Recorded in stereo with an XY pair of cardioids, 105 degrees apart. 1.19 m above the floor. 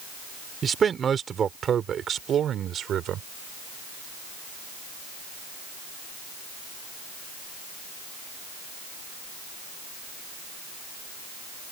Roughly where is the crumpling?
I don't hear crumpling.